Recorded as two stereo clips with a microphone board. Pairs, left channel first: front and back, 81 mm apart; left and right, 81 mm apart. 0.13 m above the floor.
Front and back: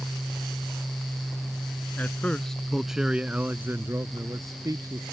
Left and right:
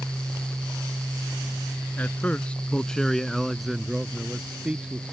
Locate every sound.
2.0 s a man speaking: 45° left; by 5.1 s 160° right